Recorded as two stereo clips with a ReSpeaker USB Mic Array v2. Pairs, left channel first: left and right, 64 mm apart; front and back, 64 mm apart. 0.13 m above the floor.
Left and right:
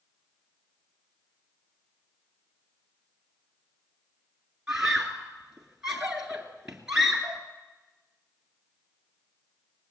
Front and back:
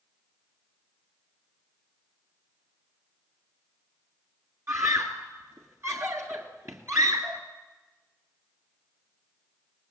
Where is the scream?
165° right, 1.9 m.